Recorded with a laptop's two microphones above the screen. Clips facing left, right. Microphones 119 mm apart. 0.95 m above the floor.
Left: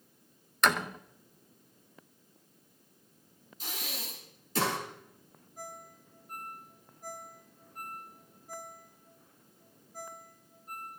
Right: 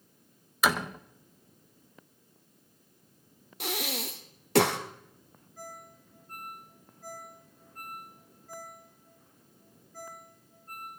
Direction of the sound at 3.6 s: 75° right (ahead or behind).